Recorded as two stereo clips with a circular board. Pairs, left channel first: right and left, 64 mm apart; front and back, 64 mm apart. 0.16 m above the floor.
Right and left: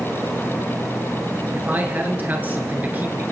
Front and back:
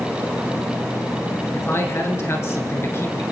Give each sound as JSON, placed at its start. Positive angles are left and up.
{"t": 1.5, "sound": "a man speaking", "azimuth_deg": 35, "distance_m": 2.5}